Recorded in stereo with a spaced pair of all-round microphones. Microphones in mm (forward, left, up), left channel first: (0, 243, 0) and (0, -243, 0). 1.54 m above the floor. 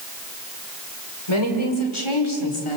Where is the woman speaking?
75° left (ahead or behind), 5 m; by 2.8 s 85° left, 3.5 m.